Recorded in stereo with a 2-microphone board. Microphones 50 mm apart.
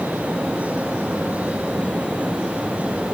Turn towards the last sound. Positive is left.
No sound to turn to.